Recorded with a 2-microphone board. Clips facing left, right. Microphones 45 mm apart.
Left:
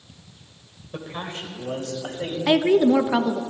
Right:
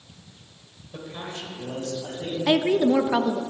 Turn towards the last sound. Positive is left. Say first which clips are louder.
# left 3 dB
turn(degrees=15)  # may be behind; listen again after turning